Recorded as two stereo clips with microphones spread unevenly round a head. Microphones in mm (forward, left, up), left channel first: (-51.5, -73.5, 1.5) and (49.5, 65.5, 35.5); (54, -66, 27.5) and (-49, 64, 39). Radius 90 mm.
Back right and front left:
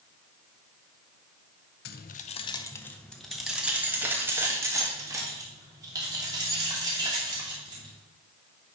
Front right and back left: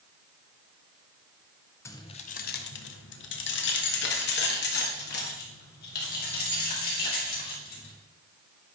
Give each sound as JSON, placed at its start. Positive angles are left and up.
{"t": 1.9, "sound": "keys jangling", "azimuth_deg": -125, "distance_m": 0.6}